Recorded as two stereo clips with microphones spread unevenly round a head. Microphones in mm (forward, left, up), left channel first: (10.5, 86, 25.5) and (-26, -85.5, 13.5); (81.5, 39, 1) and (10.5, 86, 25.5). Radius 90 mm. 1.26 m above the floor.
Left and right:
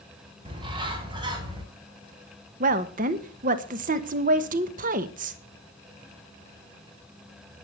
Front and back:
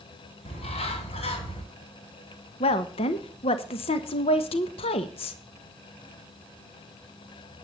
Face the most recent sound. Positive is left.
turn(degrees=-55)